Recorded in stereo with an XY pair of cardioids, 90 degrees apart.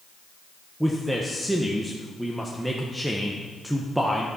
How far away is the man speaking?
About 1.3 m.